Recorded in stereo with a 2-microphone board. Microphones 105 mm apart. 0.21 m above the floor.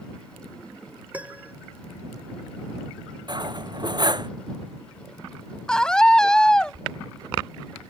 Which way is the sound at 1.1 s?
15° right (ahead or behind).